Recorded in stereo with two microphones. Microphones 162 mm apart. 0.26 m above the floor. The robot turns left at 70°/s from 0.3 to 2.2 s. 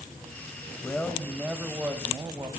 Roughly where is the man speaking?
Centre.